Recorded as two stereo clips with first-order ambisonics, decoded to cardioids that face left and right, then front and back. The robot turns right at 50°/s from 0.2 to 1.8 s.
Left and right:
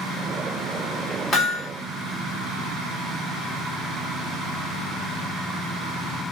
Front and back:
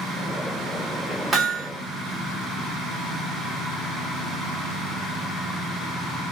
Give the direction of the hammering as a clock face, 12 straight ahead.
8 o'clock.